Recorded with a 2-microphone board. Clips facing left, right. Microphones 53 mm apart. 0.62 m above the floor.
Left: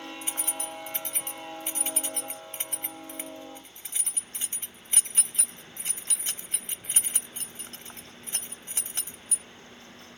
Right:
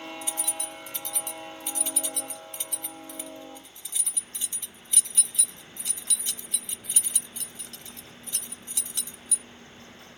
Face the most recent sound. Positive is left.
turn(degrees=40)  # may be behind; listen again after turning